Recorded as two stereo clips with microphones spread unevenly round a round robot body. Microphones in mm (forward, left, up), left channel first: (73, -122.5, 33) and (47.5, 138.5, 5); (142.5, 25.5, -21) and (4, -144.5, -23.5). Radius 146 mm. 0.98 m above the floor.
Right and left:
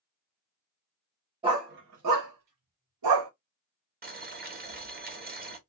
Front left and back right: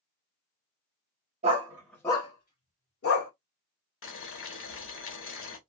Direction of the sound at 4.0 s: 40° left.